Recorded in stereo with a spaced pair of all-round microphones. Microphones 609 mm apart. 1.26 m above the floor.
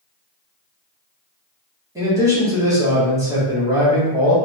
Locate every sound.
1.9 s a man speaking: 5° right (ahead or behind), 1.6 m